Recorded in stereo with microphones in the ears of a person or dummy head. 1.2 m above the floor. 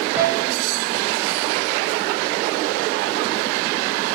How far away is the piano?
About 8.5 m.